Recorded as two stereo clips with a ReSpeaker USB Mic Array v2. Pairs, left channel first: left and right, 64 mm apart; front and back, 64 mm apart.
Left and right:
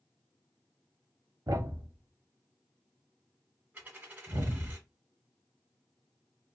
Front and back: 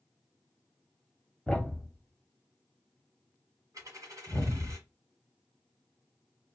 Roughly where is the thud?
Right.